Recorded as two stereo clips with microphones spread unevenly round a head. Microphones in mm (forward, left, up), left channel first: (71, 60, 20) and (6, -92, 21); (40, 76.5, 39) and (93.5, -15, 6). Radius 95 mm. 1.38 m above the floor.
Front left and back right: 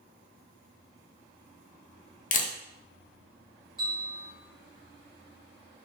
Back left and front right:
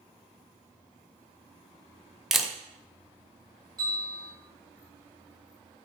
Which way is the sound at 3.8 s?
Straight ahead.